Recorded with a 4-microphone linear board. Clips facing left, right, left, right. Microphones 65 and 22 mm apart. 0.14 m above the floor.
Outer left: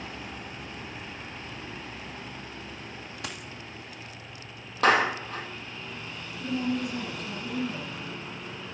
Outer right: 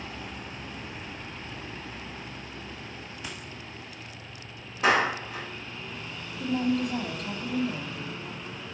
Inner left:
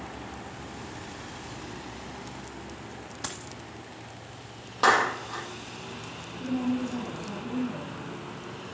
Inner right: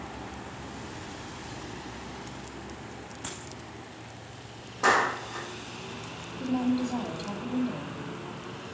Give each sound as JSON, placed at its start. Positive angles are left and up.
{"t": 3.2, "sound": "a dropped coin", "side_deg": 70, "distance_m": 1.6}
{"t": 4.8, "sound": "a clap", "side_deg": 75, "distance_m": 3.5}
{"t": 6.4, "sound": "a woman speaking", "side_deg": -50, "distance_m": 3.5}